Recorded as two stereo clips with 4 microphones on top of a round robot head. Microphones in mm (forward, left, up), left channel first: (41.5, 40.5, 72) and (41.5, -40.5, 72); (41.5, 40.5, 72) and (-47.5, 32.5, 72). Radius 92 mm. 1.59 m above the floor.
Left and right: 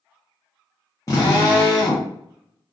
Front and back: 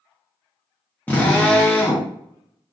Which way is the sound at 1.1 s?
70° left.